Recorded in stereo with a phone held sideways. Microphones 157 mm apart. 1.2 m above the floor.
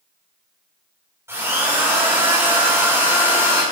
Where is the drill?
15° right (ahead or behind), 4 m.